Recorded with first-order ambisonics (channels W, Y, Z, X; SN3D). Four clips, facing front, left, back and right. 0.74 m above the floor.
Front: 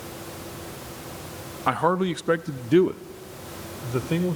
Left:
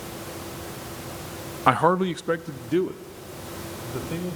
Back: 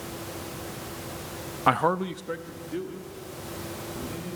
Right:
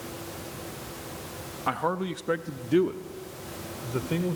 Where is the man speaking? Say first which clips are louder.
Left 9 dB, front 1 dB; 110° left, 0.5 m; by 4.4 s 15° right, 2.5 m.